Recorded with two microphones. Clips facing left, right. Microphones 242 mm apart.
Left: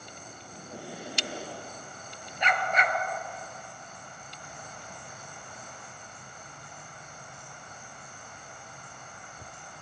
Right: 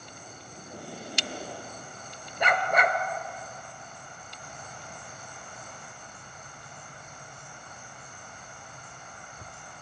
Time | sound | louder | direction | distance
0.5 | breathing | left 1 dB | 70° left (ahead or behind) | 7 m
2.4 | a dog barking | right 4 dB | 60° right (ahead or behind) | 0.7 m